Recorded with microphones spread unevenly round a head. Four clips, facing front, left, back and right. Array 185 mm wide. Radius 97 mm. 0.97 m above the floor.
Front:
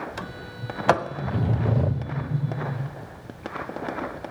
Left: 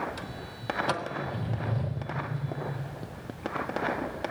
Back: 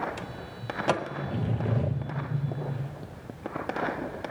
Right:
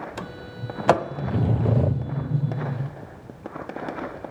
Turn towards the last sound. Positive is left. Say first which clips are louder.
# right 4 dB, front 3 dB
turn(degrees=-80)